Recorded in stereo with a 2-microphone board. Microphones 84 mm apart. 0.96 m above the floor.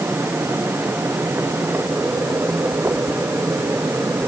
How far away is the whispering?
I don't hear whispering.